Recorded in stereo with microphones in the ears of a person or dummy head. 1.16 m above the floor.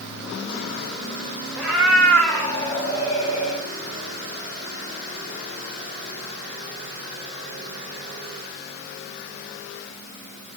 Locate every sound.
1.6 s a cat meowing: centre (ahead or behind), 2.5 m; by 3.6 s 35° left (ahead or behind), 2 m